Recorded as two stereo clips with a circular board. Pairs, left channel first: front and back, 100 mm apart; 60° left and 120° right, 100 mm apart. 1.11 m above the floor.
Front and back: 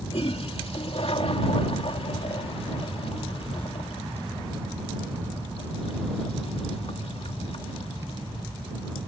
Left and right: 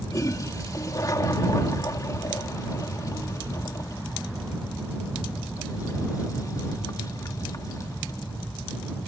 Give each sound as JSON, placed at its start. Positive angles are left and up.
{"t": 0.1, "sound": "a toilet flushing", "azimuth_deg": 10}